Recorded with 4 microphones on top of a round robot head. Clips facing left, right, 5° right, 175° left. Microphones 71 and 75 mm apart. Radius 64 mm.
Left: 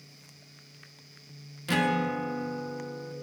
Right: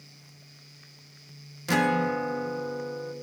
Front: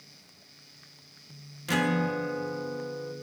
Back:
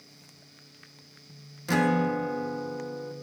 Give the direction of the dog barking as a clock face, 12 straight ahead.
I don't hear a dog barking.